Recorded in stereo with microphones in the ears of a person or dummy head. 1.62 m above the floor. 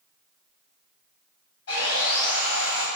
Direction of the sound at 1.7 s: 60° left (ahead or behind).